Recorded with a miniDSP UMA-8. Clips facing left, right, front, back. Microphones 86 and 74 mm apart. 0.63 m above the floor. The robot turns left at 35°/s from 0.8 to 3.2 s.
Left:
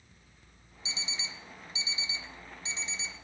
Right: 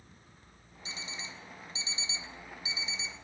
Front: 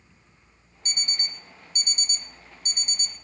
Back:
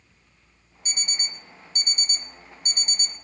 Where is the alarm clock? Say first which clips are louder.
Left 1 dB, even; 100° right, 0.6 m; by 3.2 s 175° left, 0.6 m.